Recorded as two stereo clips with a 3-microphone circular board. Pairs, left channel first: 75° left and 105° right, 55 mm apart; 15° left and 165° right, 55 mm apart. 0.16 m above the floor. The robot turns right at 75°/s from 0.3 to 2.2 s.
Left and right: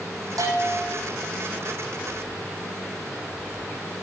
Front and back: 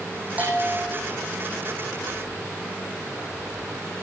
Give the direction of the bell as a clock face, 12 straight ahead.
3 o'clock.